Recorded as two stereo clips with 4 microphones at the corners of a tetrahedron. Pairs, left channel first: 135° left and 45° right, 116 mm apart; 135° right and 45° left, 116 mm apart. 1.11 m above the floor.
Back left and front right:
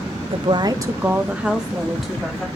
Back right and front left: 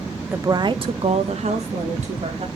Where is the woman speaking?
25° right, 0.6 m; by 2.5 s 50° left, 1.6 m.